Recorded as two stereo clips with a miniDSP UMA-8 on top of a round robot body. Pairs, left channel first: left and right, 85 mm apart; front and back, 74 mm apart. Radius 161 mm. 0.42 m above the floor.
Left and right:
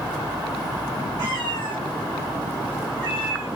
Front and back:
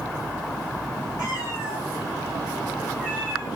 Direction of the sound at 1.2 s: 40° right.